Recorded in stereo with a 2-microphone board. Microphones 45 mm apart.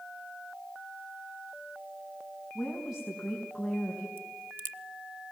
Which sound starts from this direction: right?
A crack, at 4.2 s.